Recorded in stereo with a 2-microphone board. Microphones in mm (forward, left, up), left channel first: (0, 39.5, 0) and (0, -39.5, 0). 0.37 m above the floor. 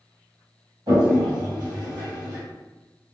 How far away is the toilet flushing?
About 1.8 m.